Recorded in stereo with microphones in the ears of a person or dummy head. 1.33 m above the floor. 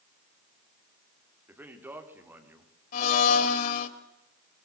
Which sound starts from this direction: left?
A blender, at 2.9 s.